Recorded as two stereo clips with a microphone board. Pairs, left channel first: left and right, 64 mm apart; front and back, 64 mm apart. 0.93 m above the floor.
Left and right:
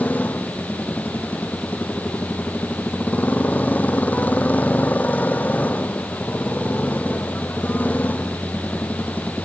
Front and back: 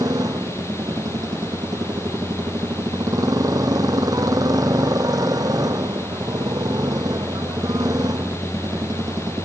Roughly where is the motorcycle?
Behind left.